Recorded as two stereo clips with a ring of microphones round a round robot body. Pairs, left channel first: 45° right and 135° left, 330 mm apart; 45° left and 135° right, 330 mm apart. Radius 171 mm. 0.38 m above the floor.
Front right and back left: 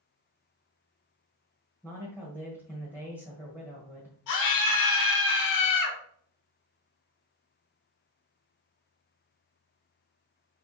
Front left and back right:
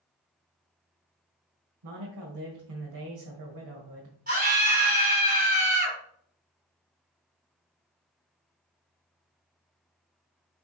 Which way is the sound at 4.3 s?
75° right.